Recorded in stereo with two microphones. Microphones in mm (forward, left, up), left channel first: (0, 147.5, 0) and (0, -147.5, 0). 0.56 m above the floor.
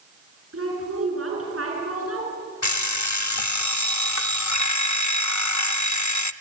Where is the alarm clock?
80° left, 0.6 m.